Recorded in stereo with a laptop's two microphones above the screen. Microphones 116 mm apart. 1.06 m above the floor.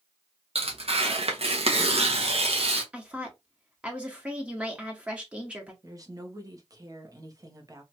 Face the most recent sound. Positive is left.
turn(degrees=-30)  # may be behind; listen again after turning